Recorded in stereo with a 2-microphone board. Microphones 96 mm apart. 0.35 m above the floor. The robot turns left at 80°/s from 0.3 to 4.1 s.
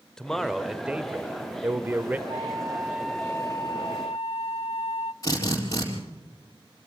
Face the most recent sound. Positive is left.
turn(degrees=35)  # may be behind; listen again after turning